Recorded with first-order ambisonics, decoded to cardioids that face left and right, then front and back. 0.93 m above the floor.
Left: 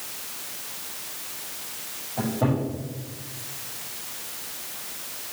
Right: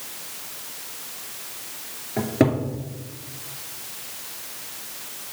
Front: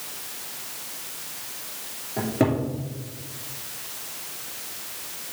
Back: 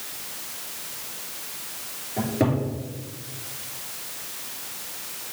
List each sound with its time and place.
2.2 s a cupboard door: 75° right, 2.5 m